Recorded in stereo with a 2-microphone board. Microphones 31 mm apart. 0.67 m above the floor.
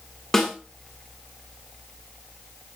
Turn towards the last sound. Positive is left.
turn(degrees=20)  # may be behind; listen again after turning